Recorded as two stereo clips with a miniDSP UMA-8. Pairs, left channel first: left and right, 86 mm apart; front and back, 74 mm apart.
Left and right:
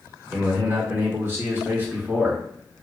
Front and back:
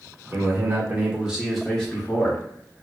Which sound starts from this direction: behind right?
A man speaking, at 0.3 s.